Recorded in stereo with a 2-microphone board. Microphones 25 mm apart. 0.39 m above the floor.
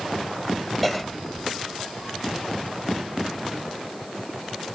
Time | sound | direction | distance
0.8 | a cough | centre (ahead or behind) | 2.5 m